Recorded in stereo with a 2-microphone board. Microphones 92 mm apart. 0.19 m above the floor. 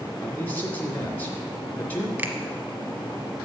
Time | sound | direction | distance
0.2 | a man speaking | 20° left (ahead or behind) | 2.5 m
2.2 | a finger snap | 20° right (ahead or behind) | 1.1 m